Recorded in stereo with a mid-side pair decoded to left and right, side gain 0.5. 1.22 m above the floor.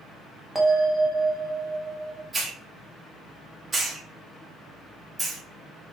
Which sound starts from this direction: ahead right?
A hiss, at 2.3 s.